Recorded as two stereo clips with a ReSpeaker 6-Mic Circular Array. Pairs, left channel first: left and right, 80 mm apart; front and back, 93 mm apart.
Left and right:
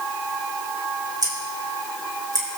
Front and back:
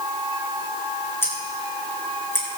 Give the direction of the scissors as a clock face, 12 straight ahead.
2 o'clock.